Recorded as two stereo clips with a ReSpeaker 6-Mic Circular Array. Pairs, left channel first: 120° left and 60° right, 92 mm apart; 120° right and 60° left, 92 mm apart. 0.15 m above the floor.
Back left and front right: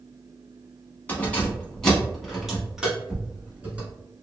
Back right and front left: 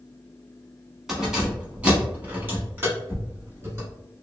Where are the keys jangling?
140° left, 1.1 m; by 3.9 s 10° left, 1.6 m.